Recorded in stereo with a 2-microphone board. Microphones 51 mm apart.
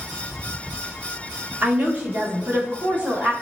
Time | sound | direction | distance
1.6 | a woman speaking | 35° right (ahead or behind) | 1.3 m